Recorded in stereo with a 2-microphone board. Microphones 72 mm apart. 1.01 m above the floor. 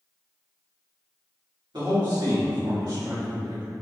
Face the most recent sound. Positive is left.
turn(degrees=-70)  # may be behind; listen again after turning